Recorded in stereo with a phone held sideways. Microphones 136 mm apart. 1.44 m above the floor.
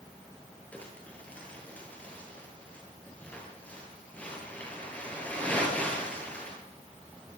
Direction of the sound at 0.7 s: 10° left (ahead or behind).